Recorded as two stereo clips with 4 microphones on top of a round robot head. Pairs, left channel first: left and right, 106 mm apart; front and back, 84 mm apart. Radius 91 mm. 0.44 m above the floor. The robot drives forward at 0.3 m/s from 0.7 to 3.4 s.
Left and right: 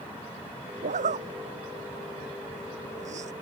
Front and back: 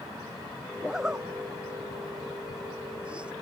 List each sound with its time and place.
0.8 s a zipper: 95° right; by 3.3 s 100° right